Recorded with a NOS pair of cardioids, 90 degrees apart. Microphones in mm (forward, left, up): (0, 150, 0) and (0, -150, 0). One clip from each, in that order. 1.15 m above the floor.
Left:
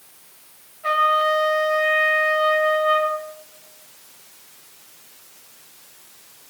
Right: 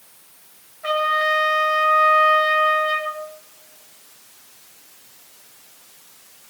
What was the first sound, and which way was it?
A trumpet, 45° right.